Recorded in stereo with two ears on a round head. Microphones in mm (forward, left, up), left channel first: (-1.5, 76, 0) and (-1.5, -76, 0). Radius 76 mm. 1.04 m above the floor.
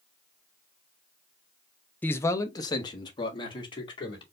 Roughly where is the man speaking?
Centre.